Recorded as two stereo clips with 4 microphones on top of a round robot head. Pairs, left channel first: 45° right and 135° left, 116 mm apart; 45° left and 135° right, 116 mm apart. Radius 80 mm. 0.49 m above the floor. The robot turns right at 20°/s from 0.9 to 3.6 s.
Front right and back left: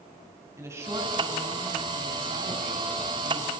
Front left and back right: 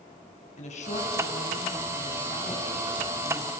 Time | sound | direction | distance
0.6 | a woman speaking | 65° left | 4.5 m